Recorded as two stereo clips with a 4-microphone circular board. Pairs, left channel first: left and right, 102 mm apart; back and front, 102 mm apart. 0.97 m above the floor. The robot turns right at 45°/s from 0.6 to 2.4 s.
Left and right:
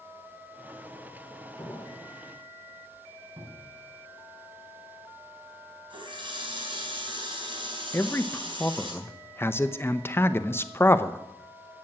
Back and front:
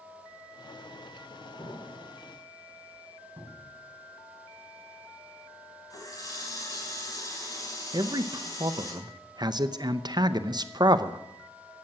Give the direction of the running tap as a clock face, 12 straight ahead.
4 o'clock.